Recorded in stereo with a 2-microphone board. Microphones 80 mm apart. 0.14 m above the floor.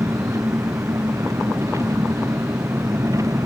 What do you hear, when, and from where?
0.0 s an engine running: 40° right (ahead or behind)